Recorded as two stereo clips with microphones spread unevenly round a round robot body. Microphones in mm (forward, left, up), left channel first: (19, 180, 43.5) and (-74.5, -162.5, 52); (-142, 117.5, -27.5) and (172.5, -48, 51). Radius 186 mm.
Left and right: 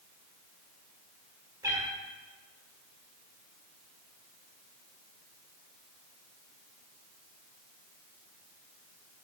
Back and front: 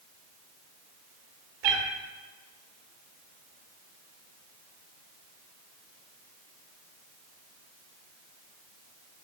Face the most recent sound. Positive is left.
turn(degrees=-25)